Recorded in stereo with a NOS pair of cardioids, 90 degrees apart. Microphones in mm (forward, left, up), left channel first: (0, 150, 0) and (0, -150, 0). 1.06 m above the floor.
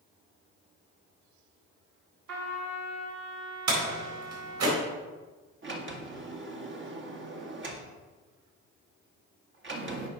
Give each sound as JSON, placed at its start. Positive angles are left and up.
{"t": 2.3, "sound": "a trumpet", "azimuth_deg": -70, "distance_m": 2.5}
{"t": 3.7, "sound": "a door slam", "azimuth_deg": -65, "distance_m": 4.0}
{"t": 5.6, "sound": "a sliding door", "azimuth_deg": -40, "distance_m": 1.9}